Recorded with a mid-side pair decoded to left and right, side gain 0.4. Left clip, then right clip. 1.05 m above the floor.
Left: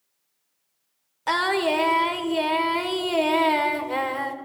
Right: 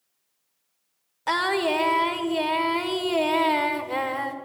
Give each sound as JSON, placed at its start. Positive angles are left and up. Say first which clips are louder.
{"t": 1.3, "sound": "singing", "louder": "left 1 dB", "azimuth_deg": 5, "distance_m": 1.5}